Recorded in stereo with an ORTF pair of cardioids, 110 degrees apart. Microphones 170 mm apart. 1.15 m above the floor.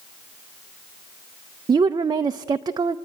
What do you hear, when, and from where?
1.7 s a woman speaking: 25° right, 0.5 m